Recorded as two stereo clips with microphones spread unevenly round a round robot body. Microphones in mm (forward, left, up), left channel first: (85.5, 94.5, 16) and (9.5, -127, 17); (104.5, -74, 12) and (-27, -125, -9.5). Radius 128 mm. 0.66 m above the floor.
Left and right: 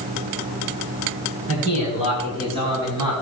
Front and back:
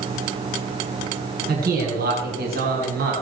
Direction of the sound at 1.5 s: 175° right.